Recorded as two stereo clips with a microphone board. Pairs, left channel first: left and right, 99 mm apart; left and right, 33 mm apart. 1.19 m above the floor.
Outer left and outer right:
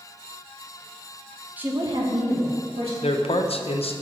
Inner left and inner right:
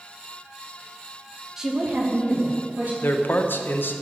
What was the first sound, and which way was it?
A woman speaking, 15° right (ahead or behind).